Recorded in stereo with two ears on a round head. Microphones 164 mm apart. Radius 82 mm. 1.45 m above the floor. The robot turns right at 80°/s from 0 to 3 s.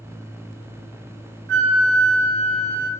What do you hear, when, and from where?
1.5 s a flute: 115° right, 1.0 m; by 2.9 s straight ahead, 1.0 m